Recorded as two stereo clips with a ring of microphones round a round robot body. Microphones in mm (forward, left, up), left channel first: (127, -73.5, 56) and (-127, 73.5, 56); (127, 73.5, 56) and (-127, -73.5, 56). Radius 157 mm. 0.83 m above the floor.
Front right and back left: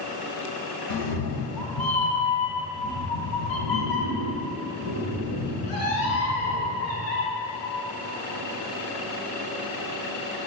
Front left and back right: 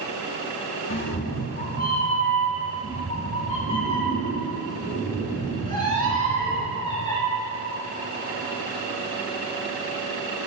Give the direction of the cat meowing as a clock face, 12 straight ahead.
1 o'clock.